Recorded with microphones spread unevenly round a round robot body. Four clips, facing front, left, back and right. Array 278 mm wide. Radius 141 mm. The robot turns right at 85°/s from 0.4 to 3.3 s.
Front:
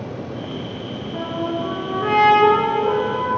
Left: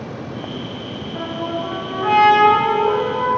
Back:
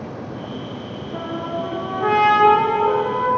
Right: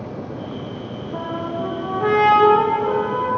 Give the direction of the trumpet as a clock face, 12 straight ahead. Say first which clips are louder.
Left 1 dB, front 2 dB; 5 o'clock.